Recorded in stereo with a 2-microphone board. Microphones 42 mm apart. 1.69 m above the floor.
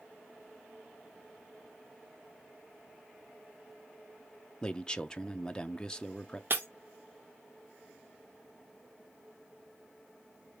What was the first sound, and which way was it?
A man speaking, 20° left (ahead or behind).